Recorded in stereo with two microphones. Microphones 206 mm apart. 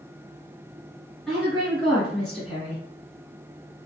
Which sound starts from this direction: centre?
A woman speaking, at 1.3 s.